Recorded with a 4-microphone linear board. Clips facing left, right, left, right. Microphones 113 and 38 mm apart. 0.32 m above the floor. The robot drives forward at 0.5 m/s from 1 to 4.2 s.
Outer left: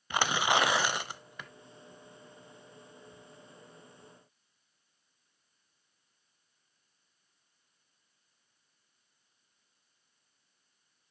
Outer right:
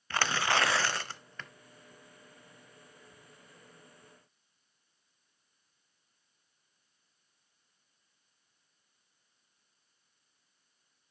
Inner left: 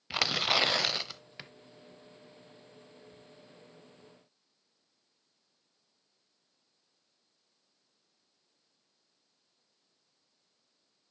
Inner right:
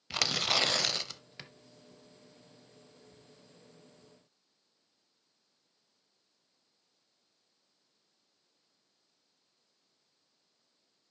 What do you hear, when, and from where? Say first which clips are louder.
0.1 s tearing paper: outer left 2 dB, inner left 2 dB; 15° left (ahead or behind), 0.6 m; by 1.5 s 10° left (ahead or behind), 0.8 m